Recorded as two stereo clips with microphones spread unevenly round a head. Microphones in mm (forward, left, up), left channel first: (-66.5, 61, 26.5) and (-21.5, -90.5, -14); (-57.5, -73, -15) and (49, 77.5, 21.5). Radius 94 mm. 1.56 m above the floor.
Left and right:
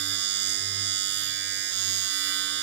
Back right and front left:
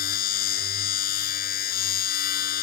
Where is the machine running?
80° right.